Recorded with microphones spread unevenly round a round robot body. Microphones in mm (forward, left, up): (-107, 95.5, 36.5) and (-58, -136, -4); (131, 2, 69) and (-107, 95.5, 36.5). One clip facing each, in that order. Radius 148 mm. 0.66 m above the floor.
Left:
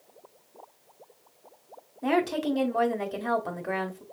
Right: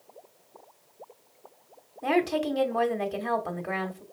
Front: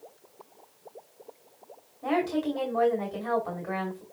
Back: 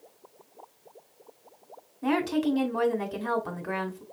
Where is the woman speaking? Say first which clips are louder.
Even, back 2 dB; 160° right, 2 m.